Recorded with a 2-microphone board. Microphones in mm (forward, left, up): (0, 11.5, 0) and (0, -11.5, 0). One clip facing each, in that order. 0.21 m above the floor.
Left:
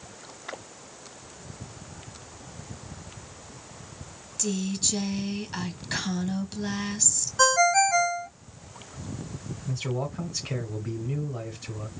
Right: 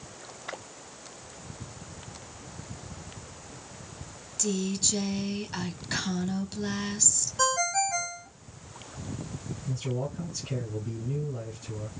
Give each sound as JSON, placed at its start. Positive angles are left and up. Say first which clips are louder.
{"t": 4.4, "sound": "a woman speaking", "louder": "even", "side_deg": 5, "distance_m": 1.3}
{"t": 7.4, "sound": "a ringtone", "louder": "left 7 dB", "side_deg": 30, "distance_m": 0.6}
{"t": 9.7, "sound": "a man speaking", "louder": "left 2 dB", "side_deg": 40, "distance_m": 1.8}